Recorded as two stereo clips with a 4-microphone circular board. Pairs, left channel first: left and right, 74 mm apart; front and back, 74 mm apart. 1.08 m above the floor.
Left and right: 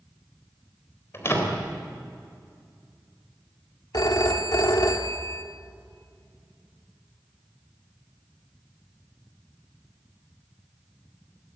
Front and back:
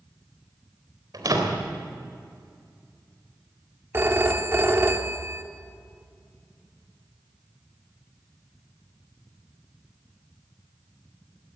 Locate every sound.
1.1 s a door slam: 145° left, 3.5 m
3.9 s a phone ringing: 120° left, 1.5 m